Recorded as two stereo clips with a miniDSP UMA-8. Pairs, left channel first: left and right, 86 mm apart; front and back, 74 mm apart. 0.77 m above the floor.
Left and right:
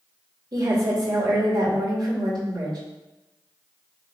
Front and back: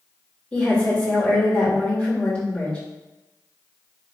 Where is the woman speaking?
70° right, 3 m.